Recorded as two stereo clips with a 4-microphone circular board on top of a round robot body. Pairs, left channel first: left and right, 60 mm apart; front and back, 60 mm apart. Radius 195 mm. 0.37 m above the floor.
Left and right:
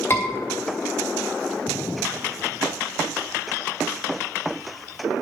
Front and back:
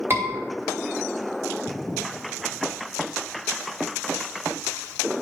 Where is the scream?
140° left, 3 m.